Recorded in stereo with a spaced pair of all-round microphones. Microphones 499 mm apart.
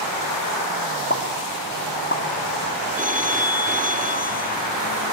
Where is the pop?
25° left (ahead or behind), 4 m.